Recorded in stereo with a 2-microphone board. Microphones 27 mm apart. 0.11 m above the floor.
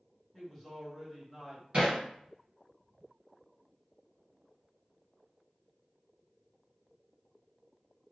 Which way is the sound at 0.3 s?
Centre (ahead or behind).